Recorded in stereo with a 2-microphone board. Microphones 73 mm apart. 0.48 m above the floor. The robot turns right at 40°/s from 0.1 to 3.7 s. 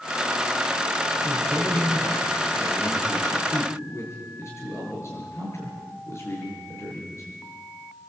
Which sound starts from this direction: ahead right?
A man speaking, at 1.2 s.